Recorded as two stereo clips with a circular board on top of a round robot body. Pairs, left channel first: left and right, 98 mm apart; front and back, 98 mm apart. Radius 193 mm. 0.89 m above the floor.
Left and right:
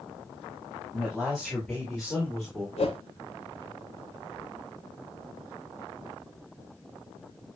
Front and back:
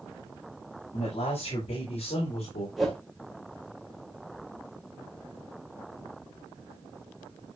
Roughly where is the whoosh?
Left.